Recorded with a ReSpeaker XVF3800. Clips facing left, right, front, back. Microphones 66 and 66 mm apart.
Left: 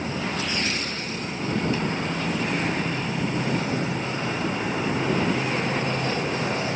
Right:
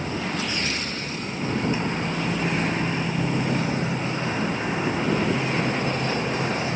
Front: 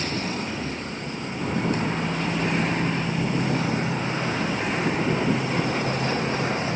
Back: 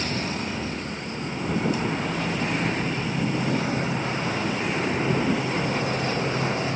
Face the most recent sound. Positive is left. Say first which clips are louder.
# even, even
turn(degrees=-25)